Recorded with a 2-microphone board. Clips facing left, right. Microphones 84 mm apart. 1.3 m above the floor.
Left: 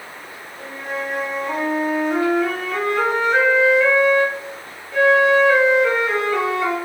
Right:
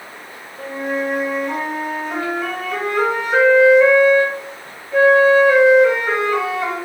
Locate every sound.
0.6 s a flute: 10° right (ahead or behind), 1.4 m